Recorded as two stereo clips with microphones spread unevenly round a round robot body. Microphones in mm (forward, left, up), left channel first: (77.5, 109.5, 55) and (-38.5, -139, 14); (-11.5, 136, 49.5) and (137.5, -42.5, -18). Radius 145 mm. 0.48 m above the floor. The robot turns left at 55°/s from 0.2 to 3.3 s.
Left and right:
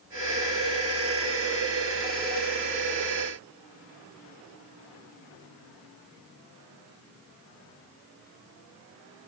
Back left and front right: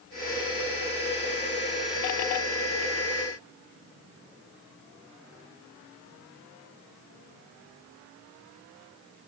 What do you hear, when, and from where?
Only background noise.